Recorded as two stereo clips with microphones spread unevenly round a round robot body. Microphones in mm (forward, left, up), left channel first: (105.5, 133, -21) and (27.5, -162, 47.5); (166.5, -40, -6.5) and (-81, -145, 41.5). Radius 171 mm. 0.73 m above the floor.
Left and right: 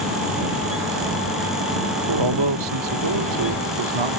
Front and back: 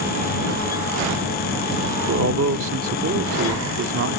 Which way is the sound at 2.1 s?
120° right.